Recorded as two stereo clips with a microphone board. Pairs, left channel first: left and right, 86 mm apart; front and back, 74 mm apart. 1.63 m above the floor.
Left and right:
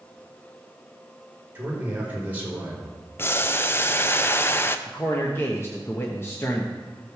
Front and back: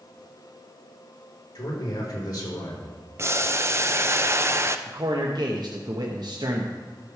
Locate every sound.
1.6 s a man speaking: 20° right, 4 m
3.2 s boiling: 145° left, 0.6 m
4.9 s a man speaking: 155° left, 1.1 m